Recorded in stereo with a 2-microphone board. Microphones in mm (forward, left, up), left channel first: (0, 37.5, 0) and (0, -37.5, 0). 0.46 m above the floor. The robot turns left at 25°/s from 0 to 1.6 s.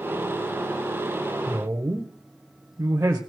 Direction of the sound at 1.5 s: 40° right (ahead or behind).